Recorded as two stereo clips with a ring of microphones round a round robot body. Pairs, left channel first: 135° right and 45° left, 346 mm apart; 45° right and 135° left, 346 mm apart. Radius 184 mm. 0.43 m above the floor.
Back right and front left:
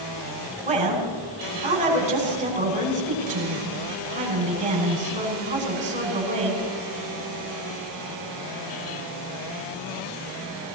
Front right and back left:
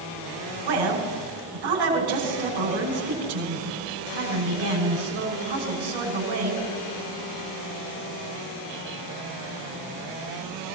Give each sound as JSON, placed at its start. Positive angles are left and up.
{"t": 0.7, "sound": "a woman speaking", "azimuth_deg": 115, "distance_m": 5.5}